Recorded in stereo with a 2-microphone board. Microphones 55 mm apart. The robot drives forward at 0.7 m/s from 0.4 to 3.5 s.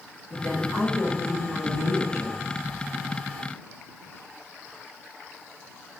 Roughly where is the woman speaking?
Left.